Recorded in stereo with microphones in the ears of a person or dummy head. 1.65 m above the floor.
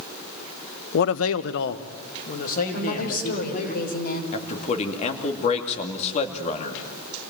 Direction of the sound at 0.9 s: 55° left (ahead or behind).